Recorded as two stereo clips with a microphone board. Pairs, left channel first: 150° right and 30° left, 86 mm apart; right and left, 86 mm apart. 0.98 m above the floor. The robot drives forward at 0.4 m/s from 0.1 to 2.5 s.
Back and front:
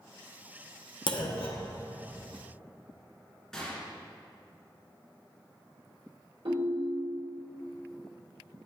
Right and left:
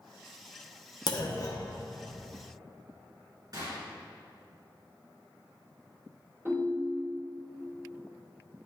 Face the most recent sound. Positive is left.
turn(degrees=30)